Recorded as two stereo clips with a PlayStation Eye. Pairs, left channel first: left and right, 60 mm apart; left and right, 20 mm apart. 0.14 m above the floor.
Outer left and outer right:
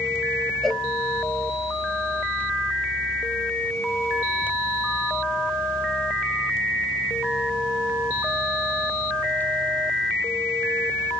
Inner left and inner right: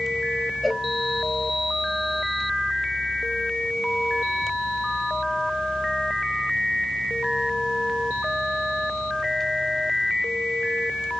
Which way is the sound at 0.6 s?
Centre (ahead or behind).